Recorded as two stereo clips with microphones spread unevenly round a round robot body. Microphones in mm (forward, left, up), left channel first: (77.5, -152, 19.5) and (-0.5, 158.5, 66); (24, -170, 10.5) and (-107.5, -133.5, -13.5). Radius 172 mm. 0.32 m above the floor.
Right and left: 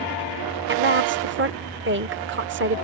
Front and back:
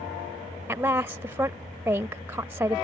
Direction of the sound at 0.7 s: 130° left.